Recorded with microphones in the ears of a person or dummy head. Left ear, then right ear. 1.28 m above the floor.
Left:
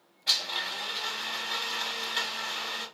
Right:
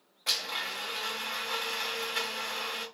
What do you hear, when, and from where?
0.3 s a blender: 45° right (ahead or behind), 0.7 m